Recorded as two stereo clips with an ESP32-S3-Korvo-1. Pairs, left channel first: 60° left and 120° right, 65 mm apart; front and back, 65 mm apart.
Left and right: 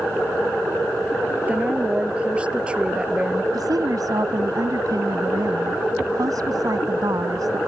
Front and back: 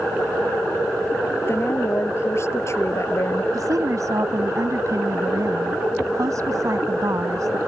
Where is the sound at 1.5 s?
50° right; by 3.4 s 40° right.